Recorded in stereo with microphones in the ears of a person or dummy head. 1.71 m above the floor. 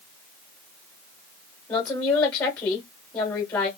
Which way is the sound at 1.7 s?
25° left (ahead or behind).